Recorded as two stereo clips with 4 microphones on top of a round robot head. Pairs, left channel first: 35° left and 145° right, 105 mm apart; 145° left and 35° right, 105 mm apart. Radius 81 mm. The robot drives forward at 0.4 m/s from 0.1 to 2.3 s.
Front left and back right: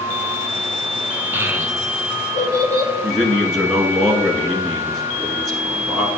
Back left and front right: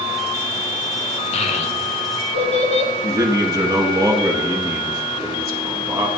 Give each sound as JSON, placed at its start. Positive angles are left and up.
{"t": 1.3, "sound": "a child speaking", "azimuth_deg": 145, "distance_m": 1.0}
{"t": 3.0, "sound": "a man speaking", "azimuth_deg": -65, "distance_m": 1.1}